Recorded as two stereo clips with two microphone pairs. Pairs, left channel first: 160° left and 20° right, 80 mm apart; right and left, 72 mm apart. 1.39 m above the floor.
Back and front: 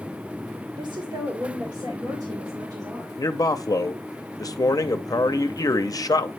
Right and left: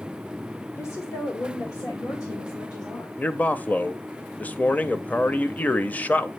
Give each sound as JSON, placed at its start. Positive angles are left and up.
{"t": 0.8, "sound": "a woman speaking", "azimuth_deg": -40, "distance_m": 1.3}
{"t": 3.2, "sound": "a man speaking", "azimuth_deg": -155, "distance_m": 0.6}